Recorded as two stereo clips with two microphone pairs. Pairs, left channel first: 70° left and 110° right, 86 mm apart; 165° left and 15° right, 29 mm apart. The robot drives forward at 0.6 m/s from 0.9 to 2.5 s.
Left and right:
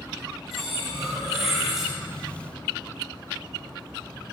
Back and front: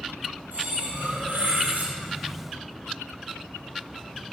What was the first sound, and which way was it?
Cutlery clinking, 20° right.